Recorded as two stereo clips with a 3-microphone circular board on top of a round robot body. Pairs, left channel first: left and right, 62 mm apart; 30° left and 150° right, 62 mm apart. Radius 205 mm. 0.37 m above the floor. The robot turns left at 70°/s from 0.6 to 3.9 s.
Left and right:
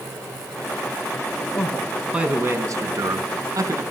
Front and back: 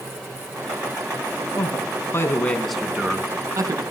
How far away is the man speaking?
About 4.5 m.